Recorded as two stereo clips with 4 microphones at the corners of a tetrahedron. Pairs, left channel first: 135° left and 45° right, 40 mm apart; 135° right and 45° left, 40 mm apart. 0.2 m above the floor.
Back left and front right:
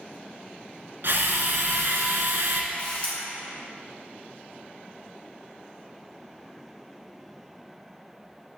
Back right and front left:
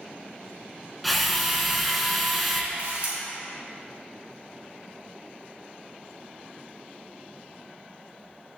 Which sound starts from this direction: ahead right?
A drill, at 1.0 s.